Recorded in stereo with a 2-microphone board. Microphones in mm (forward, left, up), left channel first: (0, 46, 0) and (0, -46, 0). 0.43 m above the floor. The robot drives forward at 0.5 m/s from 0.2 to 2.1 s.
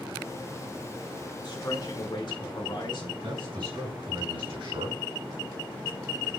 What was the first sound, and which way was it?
A man speaking, 50° left (ahead or behind).